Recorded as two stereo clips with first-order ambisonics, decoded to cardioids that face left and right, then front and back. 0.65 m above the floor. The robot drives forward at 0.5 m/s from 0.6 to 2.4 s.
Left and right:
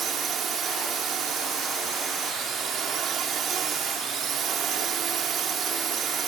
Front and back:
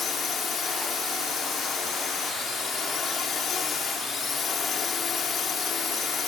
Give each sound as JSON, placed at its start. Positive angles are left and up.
{"t": 0.0, "sound": "a drone", "azimuth_deg": -45}